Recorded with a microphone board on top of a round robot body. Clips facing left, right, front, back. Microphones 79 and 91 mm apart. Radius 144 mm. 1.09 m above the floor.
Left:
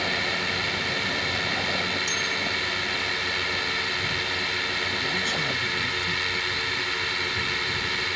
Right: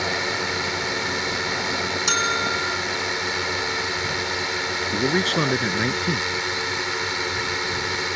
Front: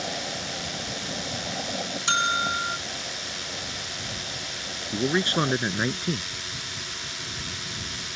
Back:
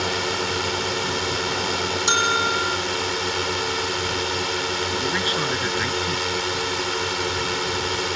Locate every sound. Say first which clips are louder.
0.0 s a drone: right 3 dB, back 8 dB; 160° right
2.1 s a bell: right 6 dB, back 3 dB; 110° right
4.9 s a man speaking: right 7 dB, front 5 dB; 60° right